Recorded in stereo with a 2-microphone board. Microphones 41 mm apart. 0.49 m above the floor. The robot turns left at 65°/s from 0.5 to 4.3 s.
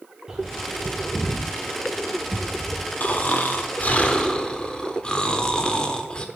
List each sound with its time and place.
0.3 s a bird: 15° right (ahead or behind), 2.5 m; by 2.9 s 10° right (ahead or behind), 2.5 m
3.0 s snoring: 120° left, 1.1 m; by 6.2 s 35° left, 1.1 m